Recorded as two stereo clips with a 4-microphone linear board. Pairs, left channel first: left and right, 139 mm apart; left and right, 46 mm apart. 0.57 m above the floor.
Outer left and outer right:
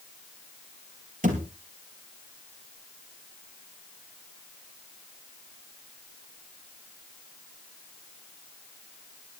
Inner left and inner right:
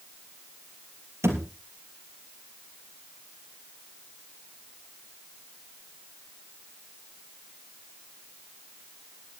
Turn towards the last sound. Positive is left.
turn(degrees=-75)  # may be behind; listen again after turning